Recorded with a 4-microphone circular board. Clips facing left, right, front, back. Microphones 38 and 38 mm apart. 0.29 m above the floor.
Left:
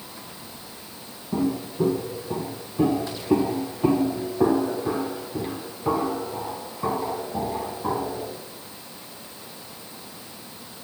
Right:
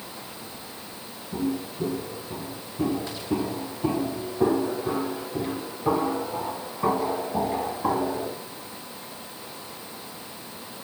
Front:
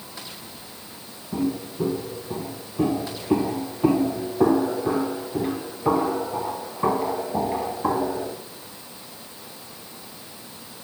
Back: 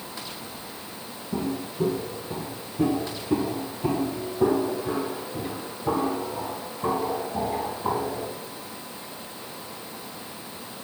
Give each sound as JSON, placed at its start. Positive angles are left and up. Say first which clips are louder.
{"t": 1.3, "sound": "footsteps", "louder": "left 4 dB, front 3 dB", "azimuth_deg": 75, "distance_m": 2.0}